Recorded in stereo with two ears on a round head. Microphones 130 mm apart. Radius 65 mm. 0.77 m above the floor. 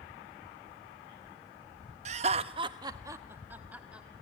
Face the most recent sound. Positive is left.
turn(degrees=-10)  # may be behind; listen again after turning